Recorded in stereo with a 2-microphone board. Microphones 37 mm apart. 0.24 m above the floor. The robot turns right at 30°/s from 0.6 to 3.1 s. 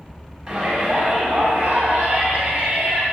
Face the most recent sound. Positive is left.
turn(degrees=-80)